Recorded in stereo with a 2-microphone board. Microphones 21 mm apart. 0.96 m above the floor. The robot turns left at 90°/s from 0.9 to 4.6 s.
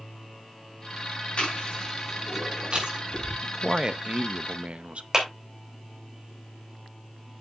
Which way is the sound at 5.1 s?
20° right (ahead or behind).